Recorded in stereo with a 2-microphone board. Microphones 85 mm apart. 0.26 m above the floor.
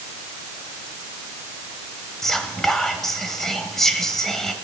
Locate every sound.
2.2 s whispering: 5° left (ahead or behind), 0.9 m